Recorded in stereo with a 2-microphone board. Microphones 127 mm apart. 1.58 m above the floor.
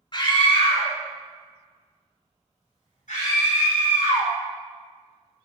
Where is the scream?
35° left (ahead or behind), 1.3 m; by 4.3 s 80° left, 3 m.